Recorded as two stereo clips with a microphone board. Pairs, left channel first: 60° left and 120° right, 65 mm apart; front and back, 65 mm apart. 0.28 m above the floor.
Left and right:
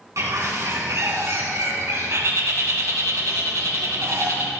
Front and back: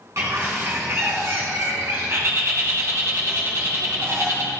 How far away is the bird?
About 2.5 m.